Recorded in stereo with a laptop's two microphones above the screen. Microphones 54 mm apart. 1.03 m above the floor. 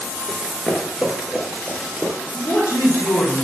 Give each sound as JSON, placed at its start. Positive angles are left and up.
{"t": 0.3, "sound": "running footsteps", "side_deg": 10, "distance_m": 1.0}
{"t": 2.3, "sound": "a man speaking", "side_deg": 55, "distance_m": 1.0}